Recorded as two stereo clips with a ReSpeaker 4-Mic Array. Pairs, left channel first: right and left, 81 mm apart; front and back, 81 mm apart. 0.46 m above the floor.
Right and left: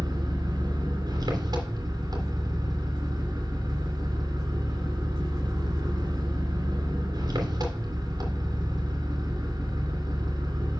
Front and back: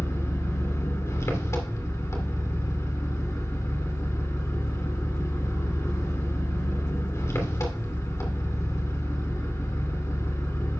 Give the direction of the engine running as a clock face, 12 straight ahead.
10 o'clock.